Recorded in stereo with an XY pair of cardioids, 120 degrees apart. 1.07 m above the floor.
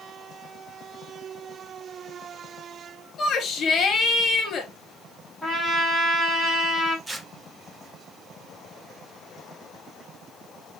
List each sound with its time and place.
3.2 s a shout: 45° left, 5.5 m
5.4 s a trumpet: 5° right, 4 m
7.1 s tearing paper: 15° right, 1.2 m